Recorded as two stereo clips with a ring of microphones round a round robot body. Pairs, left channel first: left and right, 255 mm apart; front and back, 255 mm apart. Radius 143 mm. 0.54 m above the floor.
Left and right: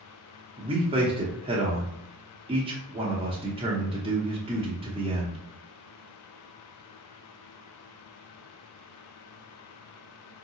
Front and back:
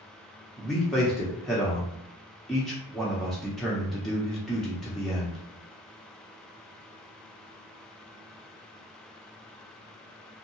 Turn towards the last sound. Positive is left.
turn(degrees=-90)